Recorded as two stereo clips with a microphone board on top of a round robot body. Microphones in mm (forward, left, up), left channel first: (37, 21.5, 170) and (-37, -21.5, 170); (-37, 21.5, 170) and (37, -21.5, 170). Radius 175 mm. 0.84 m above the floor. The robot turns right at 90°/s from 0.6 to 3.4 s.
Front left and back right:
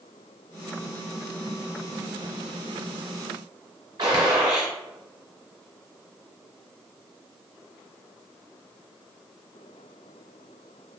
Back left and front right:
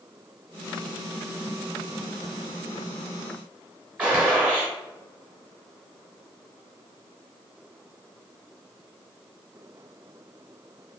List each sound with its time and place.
4.0 s a gunshot: 110° right, 0.6 m